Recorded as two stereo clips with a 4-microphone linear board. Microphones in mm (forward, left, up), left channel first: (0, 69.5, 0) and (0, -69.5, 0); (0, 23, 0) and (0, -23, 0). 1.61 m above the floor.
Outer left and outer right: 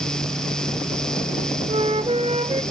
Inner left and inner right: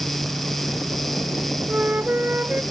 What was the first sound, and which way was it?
A flute, 40° right (ahead or behind).